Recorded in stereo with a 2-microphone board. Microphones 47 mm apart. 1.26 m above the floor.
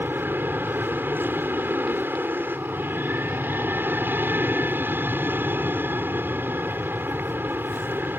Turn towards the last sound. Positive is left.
turn(degrees=-55)  # may be behind; listen again after turning